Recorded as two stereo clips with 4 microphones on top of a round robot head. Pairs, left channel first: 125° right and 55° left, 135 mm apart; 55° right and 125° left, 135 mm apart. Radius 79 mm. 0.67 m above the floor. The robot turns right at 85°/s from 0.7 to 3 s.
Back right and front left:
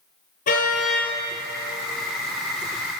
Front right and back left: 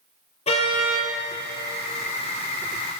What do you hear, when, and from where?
0.5 s a car horn: 100° right, 9.5 m; by 1.1 s 70° right, 9.5 m